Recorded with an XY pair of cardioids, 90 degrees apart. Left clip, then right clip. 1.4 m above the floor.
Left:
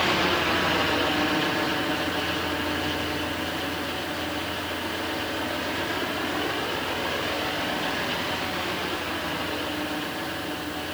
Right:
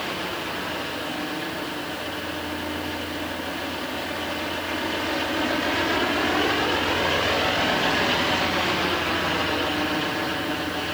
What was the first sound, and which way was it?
Only background noise.